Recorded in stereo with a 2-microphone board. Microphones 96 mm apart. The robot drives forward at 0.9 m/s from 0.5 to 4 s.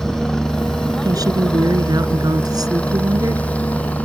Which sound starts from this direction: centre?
A helicopter, at 0.0 s.